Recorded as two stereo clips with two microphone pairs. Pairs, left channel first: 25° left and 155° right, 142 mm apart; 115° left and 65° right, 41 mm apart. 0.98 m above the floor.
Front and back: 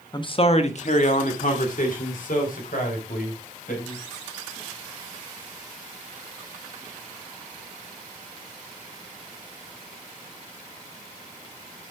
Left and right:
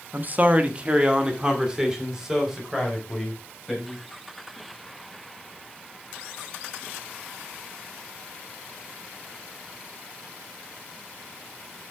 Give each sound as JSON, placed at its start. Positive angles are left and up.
{"t": 0.1, "sound": "a man speaking", "azimuth_deg": -30, "distance_m": 1.0}